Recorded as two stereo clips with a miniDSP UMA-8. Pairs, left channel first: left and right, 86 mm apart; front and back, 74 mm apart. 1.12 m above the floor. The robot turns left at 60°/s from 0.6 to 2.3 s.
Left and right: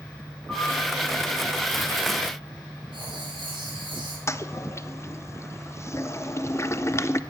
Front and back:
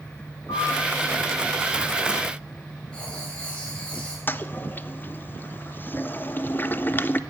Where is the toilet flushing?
50° left, 0.6 m.